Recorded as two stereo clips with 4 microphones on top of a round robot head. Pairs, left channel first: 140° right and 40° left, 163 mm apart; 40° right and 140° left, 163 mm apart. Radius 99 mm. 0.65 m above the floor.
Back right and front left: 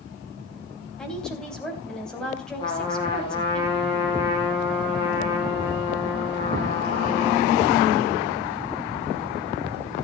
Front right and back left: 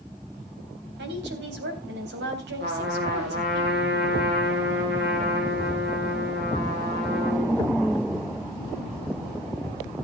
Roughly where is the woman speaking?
Behind left.